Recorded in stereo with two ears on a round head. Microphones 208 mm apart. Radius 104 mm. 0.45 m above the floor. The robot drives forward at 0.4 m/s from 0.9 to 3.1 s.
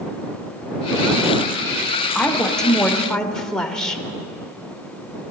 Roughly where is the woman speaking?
Centre.